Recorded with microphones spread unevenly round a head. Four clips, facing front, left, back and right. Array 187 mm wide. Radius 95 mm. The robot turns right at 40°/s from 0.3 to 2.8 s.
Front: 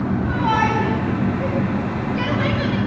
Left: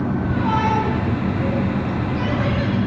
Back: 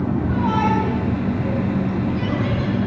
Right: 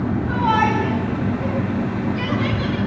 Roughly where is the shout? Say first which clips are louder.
Right 2 dB, front 1 dB; ahead right.